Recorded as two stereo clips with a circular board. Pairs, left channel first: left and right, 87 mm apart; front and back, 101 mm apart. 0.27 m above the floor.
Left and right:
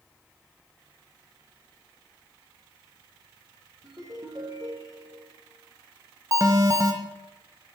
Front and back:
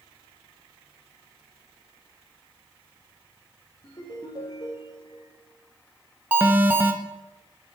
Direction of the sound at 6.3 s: 115° right.